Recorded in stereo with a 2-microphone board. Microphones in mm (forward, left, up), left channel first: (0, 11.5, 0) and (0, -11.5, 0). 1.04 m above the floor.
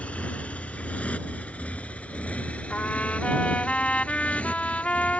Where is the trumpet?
75° left (ahead or behind).